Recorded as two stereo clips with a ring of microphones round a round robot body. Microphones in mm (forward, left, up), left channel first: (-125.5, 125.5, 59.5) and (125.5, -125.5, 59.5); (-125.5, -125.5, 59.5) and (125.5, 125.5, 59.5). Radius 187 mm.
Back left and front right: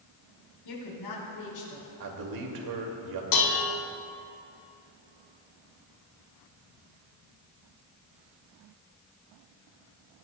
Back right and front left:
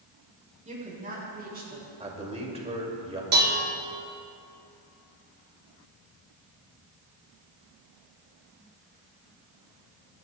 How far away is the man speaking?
About 2 m.